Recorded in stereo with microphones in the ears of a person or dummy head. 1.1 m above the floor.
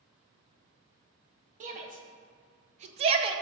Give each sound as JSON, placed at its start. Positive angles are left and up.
{"t": 1.6, "sound": "a shout", "side_deg": -40, "distance_m": 1.2}